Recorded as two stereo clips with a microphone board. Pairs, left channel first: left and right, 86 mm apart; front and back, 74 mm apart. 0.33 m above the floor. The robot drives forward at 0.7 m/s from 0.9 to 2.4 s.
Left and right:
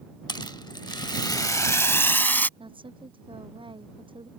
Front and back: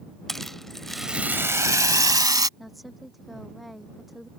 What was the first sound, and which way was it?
A rattle, 85° left.